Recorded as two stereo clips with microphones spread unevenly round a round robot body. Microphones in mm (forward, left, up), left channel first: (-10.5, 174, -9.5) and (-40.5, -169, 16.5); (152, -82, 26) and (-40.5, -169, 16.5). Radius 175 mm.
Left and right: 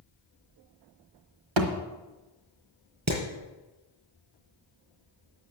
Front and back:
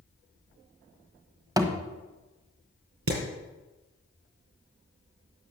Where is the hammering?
140° right, 4.5 m.